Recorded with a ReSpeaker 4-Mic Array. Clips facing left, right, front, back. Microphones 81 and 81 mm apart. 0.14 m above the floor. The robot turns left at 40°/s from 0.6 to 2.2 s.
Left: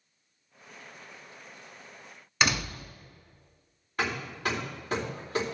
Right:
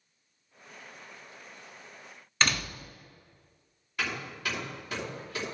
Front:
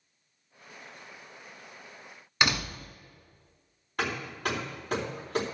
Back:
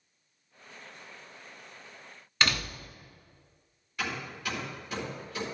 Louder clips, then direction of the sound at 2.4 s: Left 2 dB, front 2 dB; 30° left.